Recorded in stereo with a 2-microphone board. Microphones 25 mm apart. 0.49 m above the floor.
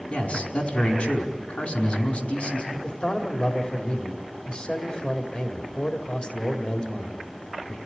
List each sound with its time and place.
0.1 s a man speaking: 65° left (ahead or behind), 4.5 m
2.7 s a man speaking: 40° left (ahead or behind), 2 m